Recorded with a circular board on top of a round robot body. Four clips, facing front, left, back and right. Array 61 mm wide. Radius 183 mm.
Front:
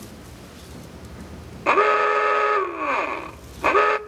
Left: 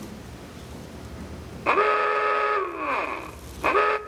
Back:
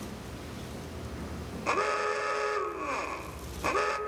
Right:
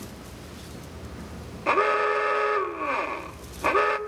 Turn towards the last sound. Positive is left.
turn(degrees=10)